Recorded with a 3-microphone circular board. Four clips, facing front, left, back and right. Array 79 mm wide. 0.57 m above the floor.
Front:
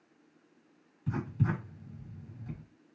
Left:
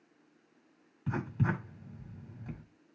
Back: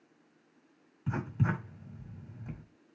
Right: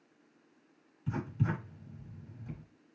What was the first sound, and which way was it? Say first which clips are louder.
Writing: left 2 dB, even; 120° left.